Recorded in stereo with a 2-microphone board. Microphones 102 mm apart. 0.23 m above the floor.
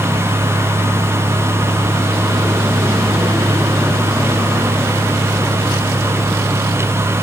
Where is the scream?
No scream in this recording.